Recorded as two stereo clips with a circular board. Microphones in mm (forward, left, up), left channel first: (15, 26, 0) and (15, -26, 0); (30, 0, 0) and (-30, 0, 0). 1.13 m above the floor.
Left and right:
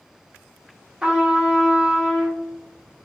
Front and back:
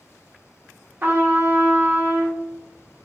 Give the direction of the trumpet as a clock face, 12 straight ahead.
5 o'clock.